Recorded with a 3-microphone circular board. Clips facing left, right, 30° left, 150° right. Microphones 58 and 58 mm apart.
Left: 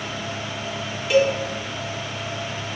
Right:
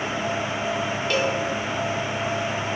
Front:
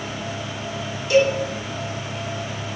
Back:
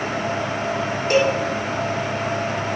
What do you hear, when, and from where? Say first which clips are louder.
1.1 s a cowbell: left 7 dB, front 1 dB; 170° left, 1.4 m